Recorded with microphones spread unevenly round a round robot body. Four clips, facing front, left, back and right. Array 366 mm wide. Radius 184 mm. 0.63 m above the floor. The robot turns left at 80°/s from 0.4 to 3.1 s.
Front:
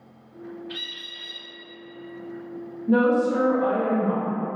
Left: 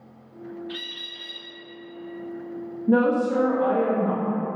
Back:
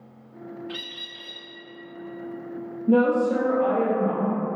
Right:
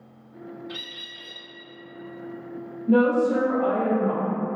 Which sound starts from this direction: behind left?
A woman speaking, at 2.9 s.